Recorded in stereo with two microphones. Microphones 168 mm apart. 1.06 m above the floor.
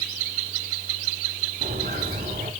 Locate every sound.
1.6 s footsteps: 65° right (ahead or behind), 3.5 m